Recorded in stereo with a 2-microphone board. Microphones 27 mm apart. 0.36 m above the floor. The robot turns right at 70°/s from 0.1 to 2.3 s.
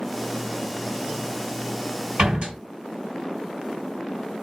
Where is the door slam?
65° right (ahead or behind), 2 m; by 2.6 s 70° right (ahead or behind), 2 m.